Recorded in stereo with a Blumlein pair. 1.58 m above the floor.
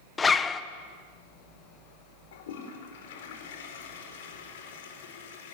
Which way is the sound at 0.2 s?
15° left.